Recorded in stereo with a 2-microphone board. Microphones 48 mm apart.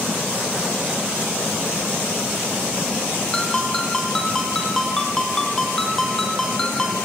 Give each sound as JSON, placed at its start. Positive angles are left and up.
{"t": 3.3, "sound": "a ringtone", "side_deg": 10, "distance_m": 3.5}